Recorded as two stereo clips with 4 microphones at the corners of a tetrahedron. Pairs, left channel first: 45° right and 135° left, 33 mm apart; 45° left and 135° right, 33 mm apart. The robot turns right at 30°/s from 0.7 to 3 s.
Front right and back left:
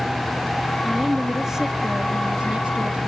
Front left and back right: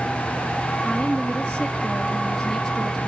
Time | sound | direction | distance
0.8 | a woman speaking | 75° left | 1.4 m